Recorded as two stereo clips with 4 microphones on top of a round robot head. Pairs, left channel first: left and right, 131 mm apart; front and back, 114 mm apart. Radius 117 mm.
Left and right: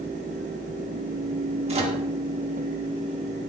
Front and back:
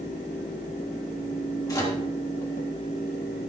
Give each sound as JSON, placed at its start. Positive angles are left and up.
{"t": 1.7, "sound": "a microwave", "azimuth_deg": -55, "distance_m": 1.7}